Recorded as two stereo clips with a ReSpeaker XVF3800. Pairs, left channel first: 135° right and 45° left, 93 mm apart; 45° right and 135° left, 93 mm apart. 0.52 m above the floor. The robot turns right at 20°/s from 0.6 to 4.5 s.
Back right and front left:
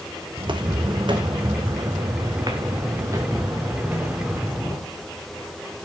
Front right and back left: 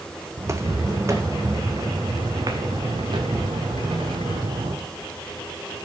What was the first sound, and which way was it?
Footsteps, 80° left.